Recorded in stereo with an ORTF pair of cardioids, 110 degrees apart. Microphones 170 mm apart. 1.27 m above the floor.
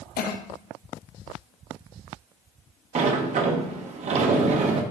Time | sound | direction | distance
0.2 | a cough | 65° left | 1.1 m
3.0 | a sliding door | 45° right | 1.2 m